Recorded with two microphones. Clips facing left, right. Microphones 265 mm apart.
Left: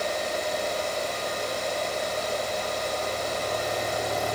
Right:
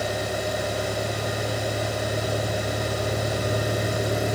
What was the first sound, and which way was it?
A vehicle, 80° right.